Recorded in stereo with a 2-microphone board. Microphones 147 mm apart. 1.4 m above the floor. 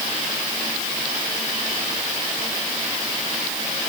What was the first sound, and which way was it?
Only background noise.